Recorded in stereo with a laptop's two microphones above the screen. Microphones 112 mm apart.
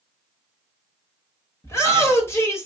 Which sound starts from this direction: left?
A shout, at 1.6 s.